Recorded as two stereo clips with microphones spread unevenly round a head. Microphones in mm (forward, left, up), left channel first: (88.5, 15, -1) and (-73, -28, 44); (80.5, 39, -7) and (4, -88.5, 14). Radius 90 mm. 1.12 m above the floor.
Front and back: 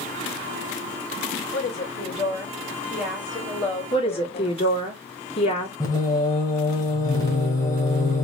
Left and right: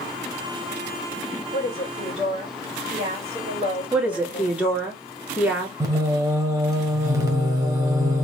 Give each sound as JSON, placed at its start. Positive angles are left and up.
{"t": 1.5, "sound": "a woman speaking", "azimuth_deg": -70, "distance_m": 3.0}
{"t": 3.9, "sound": "a woman speaking", "azimuth_deg": -40, "distance_m": 2.0}
{"t": 5.8, "sound": "singing", "azimuth_deg": -60, "distance_m": 1.6}